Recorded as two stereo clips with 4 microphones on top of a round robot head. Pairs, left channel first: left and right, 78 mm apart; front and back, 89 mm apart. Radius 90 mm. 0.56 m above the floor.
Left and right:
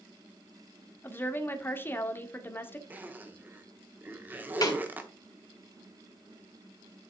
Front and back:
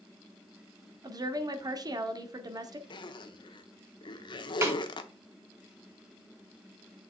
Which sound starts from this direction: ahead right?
A zipper, at 2.9 s.